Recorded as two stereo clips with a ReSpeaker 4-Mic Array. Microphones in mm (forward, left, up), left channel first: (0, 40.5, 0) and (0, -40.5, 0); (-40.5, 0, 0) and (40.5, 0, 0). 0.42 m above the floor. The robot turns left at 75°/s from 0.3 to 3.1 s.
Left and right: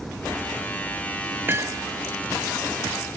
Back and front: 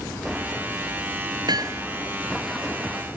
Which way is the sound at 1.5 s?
25° right.